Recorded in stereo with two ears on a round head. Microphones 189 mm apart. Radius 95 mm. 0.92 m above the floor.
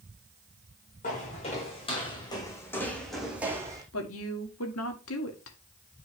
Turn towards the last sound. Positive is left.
turn(degrees=70)  # may be behind; listen again after turning